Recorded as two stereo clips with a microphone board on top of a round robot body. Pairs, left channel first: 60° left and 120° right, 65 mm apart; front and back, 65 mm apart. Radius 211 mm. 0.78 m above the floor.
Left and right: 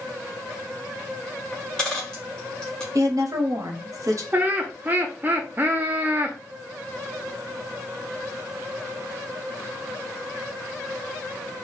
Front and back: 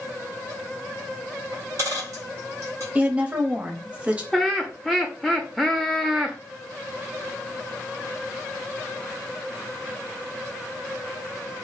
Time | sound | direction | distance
1.5 | a dropped coin | 140° left | 0.6 m
3.0 | a woman speaking | 115° right | 1.0 m
4.3 | laughter | 90° right | 0.7 m